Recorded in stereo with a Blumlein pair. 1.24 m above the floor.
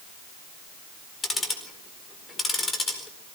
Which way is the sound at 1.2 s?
15° left.